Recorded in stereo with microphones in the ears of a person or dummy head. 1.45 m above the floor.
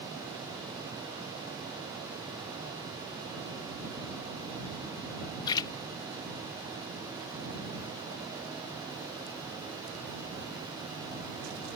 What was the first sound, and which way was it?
A splash, 25° left (ahead or behind).